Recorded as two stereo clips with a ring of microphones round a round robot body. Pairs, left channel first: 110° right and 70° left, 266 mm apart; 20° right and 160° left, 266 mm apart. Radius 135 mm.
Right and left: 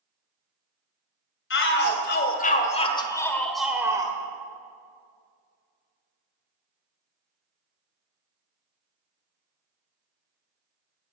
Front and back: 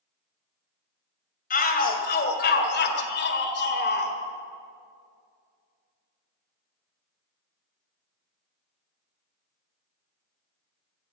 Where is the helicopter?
I don't hear a helicopter.